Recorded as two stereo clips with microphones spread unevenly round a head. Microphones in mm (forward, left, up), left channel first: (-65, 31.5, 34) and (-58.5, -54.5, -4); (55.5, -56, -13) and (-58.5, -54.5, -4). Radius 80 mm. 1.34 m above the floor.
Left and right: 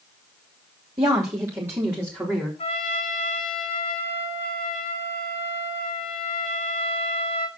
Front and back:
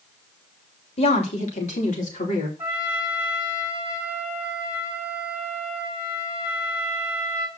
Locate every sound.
1.0 s a woman speaking: 30° right, 3 m; by 2.5 s straight ahead, 4 m
2.6 s a trumpet: 100° left, 2.5 m